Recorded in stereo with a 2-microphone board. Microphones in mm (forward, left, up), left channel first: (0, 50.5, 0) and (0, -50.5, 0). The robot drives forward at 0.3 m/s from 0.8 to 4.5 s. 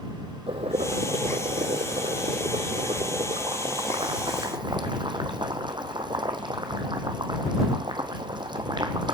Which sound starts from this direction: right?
Boiling, at 0.5 s.